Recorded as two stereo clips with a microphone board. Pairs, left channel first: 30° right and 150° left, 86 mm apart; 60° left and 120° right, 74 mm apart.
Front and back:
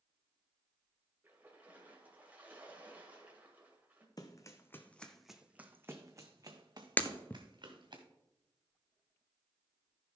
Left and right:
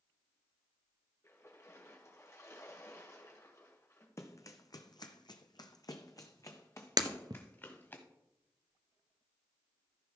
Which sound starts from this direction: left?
A splash, at 1.2 s.